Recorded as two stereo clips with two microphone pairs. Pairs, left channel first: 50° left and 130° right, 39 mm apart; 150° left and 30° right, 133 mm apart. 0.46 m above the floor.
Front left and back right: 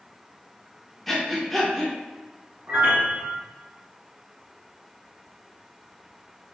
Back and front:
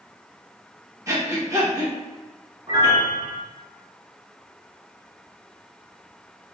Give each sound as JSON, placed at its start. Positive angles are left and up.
{"t": 1.1, "sound": "breathing", "azimuth_deg": -30, "distance_m": 1.1}
{"t": 2.7, "sound": "a piano", "azimuth_deg": -95, "distance_m": 1.8}